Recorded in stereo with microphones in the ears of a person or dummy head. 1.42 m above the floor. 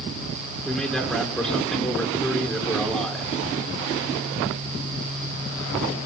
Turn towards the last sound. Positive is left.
turn(degrees=10)  # may be behind; listen again after turning